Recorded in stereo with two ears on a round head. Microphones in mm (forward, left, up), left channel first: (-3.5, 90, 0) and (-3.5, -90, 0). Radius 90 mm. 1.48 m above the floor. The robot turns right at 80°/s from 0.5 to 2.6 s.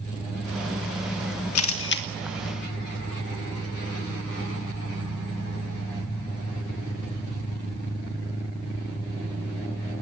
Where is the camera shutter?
80° left, 1.8 m; by 2.0 s 50° left (ahead or behind), 1.8 m.